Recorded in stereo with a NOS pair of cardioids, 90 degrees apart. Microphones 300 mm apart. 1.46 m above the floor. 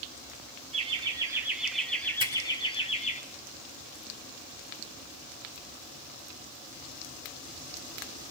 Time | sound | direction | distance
0.7 | laughter | 20° right | 1.8 m
2.2 | a finger snap | 45° left | 7.5 m